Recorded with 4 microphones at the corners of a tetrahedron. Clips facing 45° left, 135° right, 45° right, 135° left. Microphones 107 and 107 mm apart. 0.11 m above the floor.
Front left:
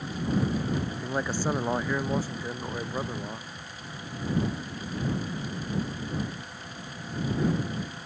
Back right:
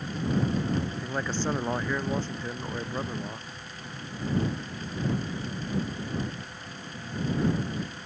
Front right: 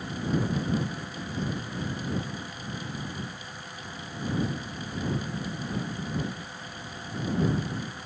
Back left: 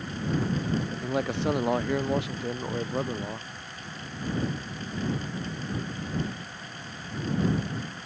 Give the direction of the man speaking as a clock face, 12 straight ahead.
8 o'clock.